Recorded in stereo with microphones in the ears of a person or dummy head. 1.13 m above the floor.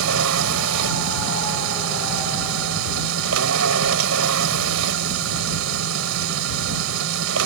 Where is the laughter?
I don't hear laughter.